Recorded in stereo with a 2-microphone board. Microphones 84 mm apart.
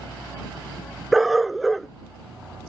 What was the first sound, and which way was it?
A dog barking, centre (ahead or behind).